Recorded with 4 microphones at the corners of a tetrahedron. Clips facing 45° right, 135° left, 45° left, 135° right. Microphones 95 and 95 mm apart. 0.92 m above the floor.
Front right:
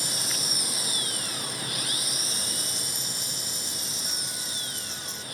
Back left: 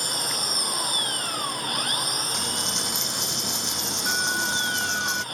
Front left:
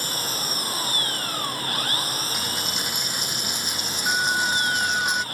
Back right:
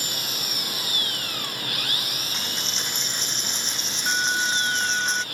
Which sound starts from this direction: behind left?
A dropped coin, at 2.3 s.